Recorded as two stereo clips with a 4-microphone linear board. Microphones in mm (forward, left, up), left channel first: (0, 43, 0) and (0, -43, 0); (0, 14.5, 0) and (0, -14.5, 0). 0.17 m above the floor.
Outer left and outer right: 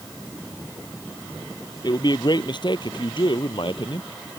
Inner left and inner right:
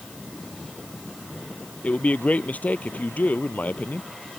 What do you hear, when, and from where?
1.8 s a man speaking: 55° left (ahead or behind); by 4.1 s 70° left (ahead or behind)